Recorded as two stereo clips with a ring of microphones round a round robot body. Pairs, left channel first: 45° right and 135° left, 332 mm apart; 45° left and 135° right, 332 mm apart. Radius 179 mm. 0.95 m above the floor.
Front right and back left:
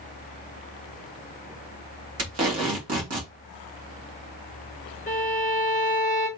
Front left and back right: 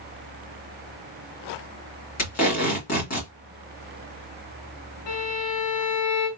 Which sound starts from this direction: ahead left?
A violin, at 5.1 s.